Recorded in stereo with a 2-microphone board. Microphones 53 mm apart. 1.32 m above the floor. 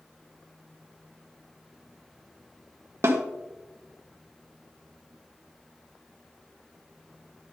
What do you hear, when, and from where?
3.0 s a snare drum: 50° right (ahead or behind), 1.0 m